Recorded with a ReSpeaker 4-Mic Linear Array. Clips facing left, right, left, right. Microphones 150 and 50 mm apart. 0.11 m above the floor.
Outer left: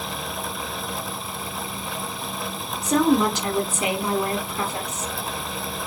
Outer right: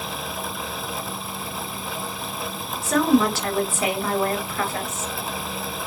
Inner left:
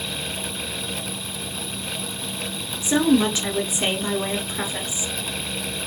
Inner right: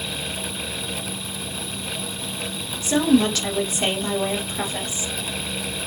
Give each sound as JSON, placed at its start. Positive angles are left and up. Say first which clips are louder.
{"t": 2.8, "sound": "a woman speaking", "louder": "even, even", "side_deg": 20, "distance_m": 1.2}